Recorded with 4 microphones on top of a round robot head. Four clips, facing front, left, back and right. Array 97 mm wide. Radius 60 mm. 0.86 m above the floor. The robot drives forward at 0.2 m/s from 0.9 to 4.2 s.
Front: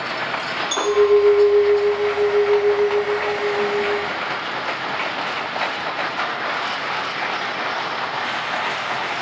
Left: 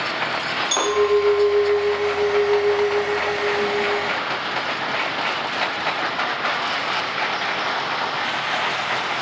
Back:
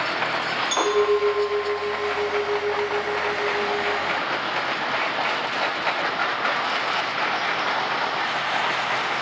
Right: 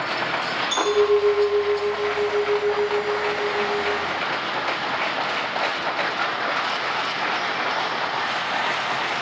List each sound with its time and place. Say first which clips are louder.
0.7 s a clink: even, front 6 dB; 90° left, 1.4 m; by 4.0 s 115° left, 1.5 m